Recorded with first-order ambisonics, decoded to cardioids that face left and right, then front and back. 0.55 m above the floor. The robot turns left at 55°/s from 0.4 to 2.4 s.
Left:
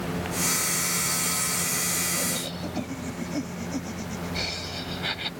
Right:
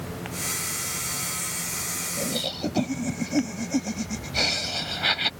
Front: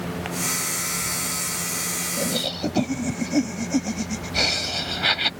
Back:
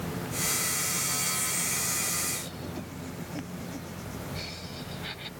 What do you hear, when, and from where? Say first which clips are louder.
2.2 s laughter: right 2 dB, front 10 dB; 15° right; by 5.3 s 25° right